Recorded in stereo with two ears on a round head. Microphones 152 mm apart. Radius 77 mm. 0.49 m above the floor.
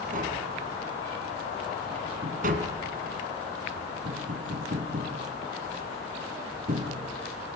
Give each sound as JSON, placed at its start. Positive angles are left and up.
{"t": 0.1, "sound": "tapping", "side_deg": -50, "distance_m": 2.5}